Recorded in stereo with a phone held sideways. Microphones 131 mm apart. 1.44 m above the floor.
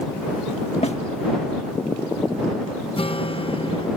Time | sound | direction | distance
0.8 | a snare drum | 55° left (ahead or behind) | ?
3.0 | a guitar | 45° left (ahead or behind) | ?